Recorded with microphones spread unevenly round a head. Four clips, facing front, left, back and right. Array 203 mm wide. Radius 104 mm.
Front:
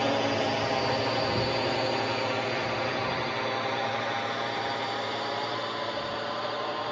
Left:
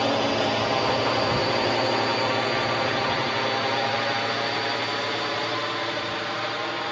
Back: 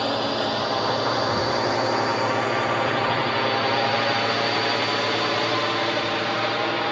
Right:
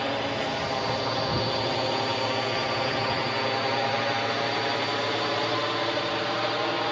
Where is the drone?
90° left; by 6.9 s 165° right.